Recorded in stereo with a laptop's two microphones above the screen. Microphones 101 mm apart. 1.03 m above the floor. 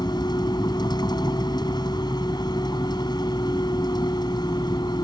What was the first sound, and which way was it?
A vehicle, 45° left (ahead or behind).